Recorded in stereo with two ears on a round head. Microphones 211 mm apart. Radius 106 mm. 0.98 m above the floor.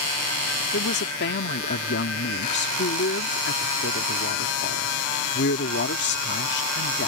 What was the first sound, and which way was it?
A woman speaking, 50° left (ahead or behind).